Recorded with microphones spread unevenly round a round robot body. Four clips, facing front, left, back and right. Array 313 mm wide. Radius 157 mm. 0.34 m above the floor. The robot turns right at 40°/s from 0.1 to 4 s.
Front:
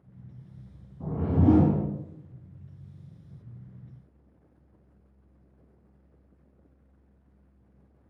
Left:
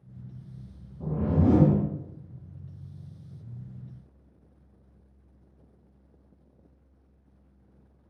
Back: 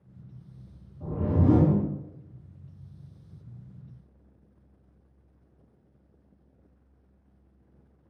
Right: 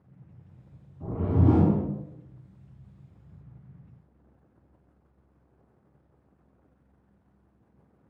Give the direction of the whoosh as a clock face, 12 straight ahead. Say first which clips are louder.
Even, front 2 dB; 11 o'clock.